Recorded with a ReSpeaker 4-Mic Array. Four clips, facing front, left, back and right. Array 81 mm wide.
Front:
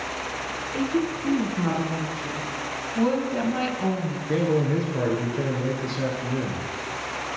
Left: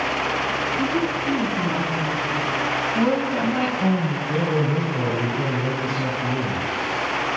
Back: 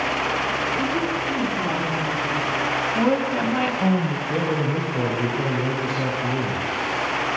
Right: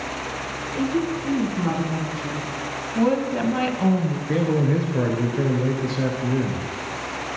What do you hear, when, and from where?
0.7 s a woman speaking: 10° right, 2.5 m; by 2.5 s 80° right, 2.5 m
3.0 s a woman speaking: 175° right, 1.0 m
4.3 s a man speaking: 65° right, 2.5 m